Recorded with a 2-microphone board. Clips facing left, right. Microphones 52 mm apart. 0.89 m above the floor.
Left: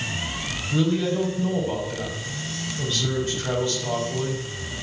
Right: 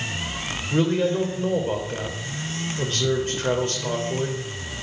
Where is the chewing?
No chewing in this recording.